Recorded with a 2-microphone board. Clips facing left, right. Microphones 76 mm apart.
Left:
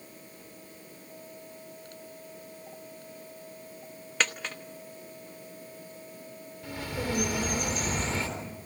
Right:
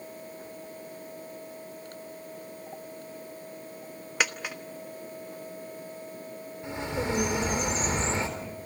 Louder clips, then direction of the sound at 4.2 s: Right 1 dB; 10° right (ahead or behind).